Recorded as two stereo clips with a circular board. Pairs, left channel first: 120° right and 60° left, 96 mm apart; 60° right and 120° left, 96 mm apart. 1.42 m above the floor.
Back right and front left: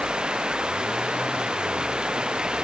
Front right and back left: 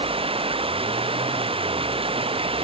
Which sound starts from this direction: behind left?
Running water, at 0.0 s.